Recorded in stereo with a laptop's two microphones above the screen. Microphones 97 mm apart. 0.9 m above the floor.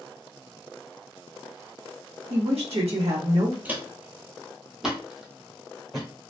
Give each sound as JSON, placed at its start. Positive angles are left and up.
{"t": 2.3, "sound": "a woman speaking", "side_deg": -75, "distance_m": 0.9}
{"t": 3.6, "sound": "footsteps", "side_deg": -15, "distance_m": 0.9}